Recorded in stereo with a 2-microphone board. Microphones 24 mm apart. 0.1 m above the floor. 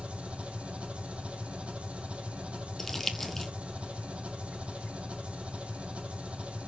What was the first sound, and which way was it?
An engine running, 55° right (ahead or behind).